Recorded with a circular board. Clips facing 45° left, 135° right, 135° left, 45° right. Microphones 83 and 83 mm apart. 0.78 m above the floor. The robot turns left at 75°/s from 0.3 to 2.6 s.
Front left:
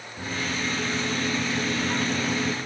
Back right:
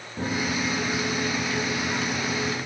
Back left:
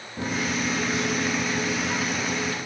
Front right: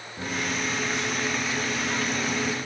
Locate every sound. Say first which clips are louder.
0.2 s a microwave: back right 3 dB, back left 3 dB; 170° right, 0.9 m; by 2.6 s 20° left, 0.9 m